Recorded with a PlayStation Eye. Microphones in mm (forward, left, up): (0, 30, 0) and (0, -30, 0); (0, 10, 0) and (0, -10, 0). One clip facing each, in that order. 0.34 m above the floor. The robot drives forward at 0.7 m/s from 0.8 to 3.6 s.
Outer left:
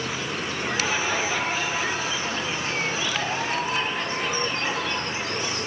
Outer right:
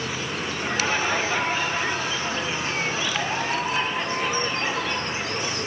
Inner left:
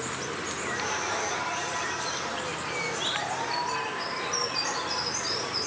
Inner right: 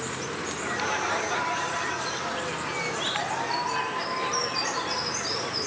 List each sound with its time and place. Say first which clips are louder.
0.6 s laughter: outer right 2 dB, inner right 3 dB; 10° right (ahead or behind), 5.5 m